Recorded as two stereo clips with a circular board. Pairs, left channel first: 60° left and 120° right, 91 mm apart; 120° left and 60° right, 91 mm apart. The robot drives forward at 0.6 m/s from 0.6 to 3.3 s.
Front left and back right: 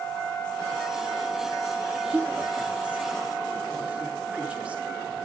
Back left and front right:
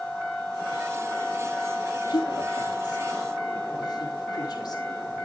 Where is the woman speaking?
160° left, 3 m.